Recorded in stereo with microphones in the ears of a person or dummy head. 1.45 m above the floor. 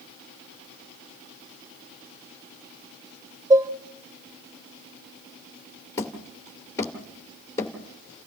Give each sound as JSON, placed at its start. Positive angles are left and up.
{"t": 3.5, "sound": "dishes clattering", "side_deg": -15, "distance_m": 0.7}
{"t": 6.0, "sound": "hammering", "side_deg": 20, "distance_m": 2.5}